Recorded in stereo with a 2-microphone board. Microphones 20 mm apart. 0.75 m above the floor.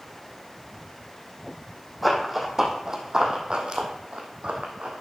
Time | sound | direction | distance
2.0 | running footsteps | 5° right (ahead or behind) | 1.8 m